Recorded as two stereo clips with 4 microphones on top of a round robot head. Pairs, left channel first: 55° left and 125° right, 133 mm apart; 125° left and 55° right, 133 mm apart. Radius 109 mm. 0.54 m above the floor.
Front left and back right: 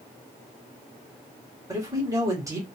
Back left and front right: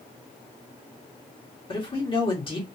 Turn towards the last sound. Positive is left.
turn(degrees=170)